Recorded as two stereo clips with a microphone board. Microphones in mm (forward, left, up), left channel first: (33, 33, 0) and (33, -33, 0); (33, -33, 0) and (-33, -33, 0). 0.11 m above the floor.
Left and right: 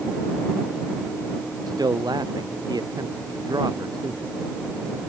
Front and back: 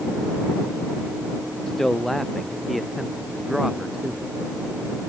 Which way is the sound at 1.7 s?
85° right.